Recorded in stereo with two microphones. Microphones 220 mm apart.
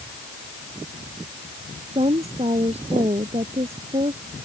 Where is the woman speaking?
30° right (ahead or behind).